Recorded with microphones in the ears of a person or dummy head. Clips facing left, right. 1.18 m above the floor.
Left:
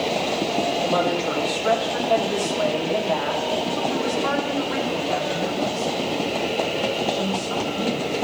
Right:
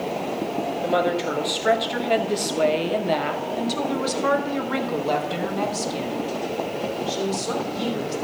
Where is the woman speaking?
5° right (ahead or behind), 1.8 m; by 8.2 s 85° right, 3.5 m.